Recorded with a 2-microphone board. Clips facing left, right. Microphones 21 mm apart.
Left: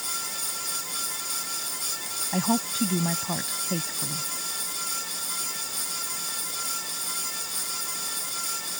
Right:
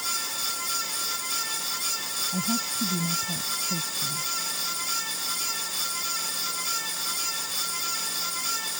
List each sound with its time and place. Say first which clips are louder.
2.3 s a woman speaking: left 6 dB; 60° left (ahead or behind)